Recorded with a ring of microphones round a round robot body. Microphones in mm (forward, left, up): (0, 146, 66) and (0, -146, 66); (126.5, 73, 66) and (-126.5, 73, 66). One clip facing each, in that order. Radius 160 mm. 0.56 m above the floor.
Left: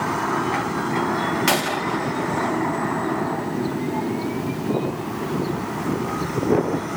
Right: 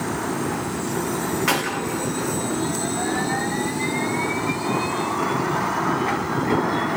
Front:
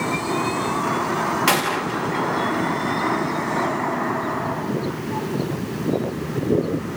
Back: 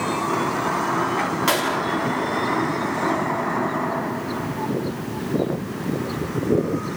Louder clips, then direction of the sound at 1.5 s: Left 1 dB, even; 55° left.